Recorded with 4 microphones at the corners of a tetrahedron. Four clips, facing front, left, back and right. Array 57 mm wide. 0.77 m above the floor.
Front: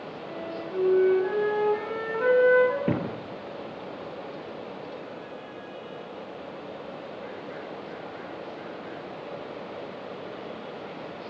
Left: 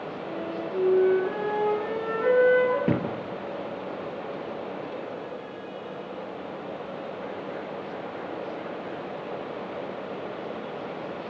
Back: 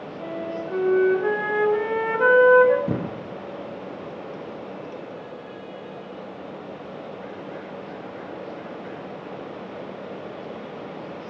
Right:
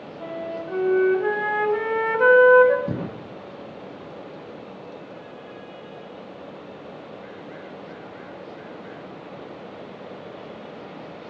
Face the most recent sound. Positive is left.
turn(degrees=55)